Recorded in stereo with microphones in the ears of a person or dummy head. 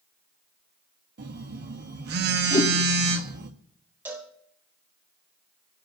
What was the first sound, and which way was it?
A phone buzzing, 55° right (ahead or behind).